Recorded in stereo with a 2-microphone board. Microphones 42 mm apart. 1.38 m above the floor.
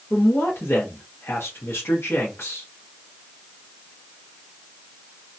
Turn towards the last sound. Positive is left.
turn(degrees=85)